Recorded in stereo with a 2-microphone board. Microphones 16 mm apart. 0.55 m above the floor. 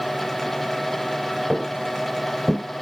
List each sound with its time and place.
1.5 s footsteps: 20° right (ahead or behind); by 2.6 s 15° left (ahead or behind)